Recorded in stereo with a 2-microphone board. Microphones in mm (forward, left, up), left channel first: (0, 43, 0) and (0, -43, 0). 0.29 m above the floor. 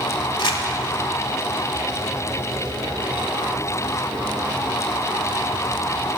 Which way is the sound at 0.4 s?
65° left (ahead or behind).